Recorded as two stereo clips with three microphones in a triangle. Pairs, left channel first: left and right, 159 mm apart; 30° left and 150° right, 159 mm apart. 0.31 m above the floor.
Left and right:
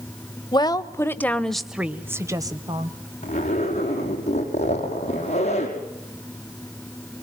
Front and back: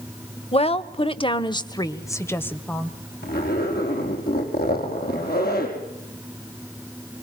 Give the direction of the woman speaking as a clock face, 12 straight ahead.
10 o'clock.